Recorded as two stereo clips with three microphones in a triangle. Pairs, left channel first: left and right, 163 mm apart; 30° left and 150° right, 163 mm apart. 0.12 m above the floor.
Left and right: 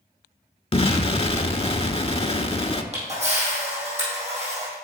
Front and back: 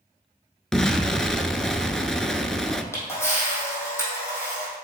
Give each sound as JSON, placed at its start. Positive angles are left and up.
{"t": 0.7, "sound": "an explosion", "azimuth_deg": 115, "distance_m": 0.6}
{"t": 2.9, "sound": "a camera shutter", "azimuth_deg": -45, "distance_m": 3.5}